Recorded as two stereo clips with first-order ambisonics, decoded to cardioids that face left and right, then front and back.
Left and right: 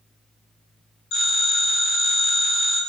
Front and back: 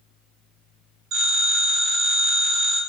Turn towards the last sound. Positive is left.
turn(degrees=125)